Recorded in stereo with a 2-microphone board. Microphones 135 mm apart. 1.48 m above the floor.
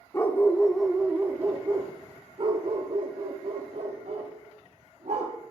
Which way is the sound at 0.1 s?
20° left (ahead or behind).